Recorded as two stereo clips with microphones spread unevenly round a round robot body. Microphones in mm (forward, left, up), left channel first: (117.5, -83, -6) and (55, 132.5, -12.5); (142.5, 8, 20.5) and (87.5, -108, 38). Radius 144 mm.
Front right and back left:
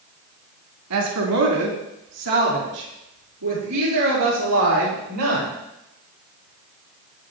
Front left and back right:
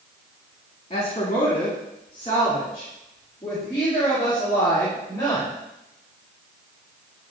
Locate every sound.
0.9 s a woman speaking: 125° left, 3.5 m; by 5.5 s 145° left, 7 m